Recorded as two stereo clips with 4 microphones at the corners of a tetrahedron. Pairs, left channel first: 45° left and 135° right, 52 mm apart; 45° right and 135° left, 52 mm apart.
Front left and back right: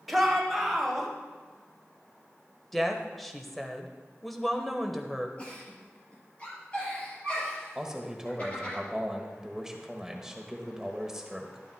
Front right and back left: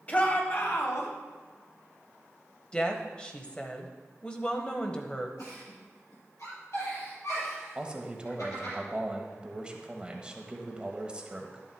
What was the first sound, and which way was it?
A shout, 50° right.